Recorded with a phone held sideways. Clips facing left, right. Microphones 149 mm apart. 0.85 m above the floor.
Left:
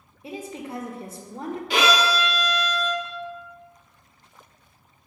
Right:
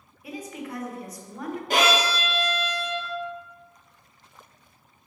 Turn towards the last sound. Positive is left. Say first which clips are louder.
# left 1 dB
turn(degrees=-45)  # may be behind; listen again after turning